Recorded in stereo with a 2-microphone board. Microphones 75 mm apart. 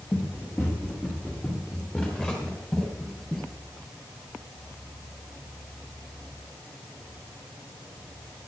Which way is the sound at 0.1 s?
35° left (ahead or behind).